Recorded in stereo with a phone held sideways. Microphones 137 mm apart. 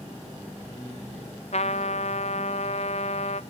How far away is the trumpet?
About 0.6 m.